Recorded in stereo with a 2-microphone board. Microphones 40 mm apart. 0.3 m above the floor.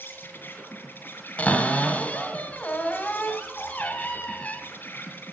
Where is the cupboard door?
40° left (ahead or behind), 1.6 m.